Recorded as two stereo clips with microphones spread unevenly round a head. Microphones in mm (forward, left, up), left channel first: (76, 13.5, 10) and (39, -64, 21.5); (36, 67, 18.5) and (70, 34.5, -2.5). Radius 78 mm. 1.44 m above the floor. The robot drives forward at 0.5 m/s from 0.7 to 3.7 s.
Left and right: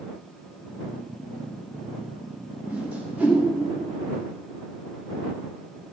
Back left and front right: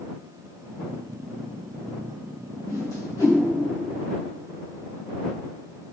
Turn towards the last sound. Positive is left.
turn(degrees=155)